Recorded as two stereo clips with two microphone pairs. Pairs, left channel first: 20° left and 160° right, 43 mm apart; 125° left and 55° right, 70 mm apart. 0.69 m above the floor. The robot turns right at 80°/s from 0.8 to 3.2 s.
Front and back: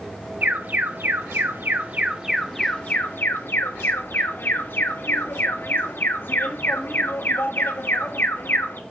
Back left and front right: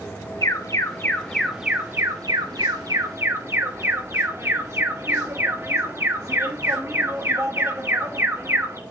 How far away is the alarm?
About 1.4 m.